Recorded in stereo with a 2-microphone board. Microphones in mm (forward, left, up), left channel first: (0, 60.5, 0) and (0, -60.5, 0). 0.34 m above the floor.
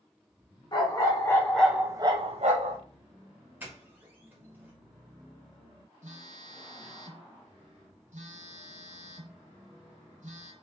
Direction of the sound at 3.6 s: 15° right (ahead or behind).